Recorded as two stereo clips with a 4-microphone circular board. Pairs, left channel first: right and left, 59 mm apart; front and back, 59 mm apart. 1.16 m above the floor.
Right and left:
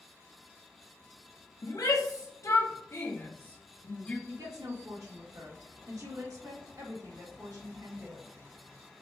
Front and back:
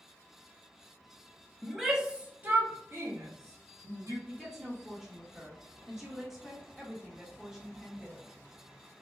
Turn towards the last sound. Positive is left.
turn(degrees=95)